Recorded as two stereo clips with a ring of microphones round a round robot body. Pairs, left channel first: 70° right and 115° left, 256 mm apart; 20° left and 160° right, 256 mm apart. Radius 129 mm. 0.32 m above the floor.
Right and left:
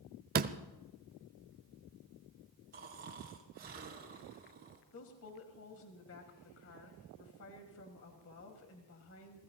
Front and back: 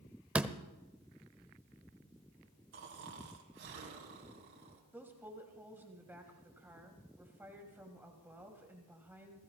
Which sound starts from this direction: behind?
Snoring, at 2.7 s.